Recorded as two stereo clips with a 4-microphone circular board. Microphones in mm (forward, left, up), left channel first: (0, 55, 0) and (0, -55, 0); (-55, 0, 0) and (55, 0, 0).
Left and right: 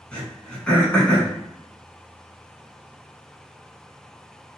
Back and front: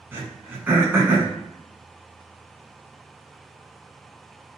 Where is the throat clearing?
30° left, 0.8 m.